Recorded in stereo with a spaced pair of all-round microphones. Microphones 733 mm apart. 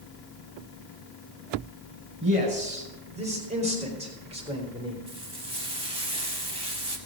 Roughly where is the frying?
Centre.